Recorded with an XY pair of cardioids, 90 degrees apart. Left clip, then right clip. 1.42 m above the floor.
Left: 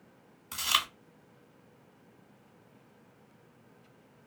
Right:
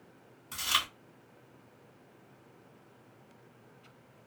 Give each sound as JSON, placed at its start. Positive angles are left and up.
{"t": 0.5, "sound": "chewing", "azimuth_deg": 45, "distance_m": 1.6}